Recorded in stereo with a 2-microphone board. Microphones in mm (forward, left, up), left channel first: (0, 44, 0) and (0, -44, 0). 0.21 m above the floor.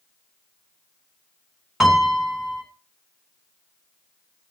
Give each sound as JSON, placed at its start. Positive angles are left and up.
{"t": 1.8, "sound": "a piano", "side_deg": 0, "distance_m": 1.9}